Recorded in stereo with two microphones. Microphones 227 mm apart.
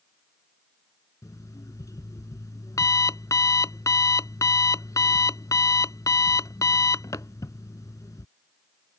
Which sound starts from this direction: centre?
An alarm clock, at 1.2 s.